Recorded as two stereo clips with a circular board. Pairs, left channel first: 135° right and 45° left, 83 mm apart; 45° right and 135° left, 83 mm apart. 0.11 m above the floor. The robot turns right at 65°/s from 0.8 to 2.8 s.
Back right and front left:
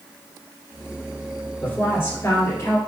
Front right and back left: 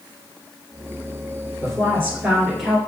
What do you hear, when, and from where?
1.6 s a woman speaking: 155° left, 1.6 m; by 2.8 s 130° right, 1.6 m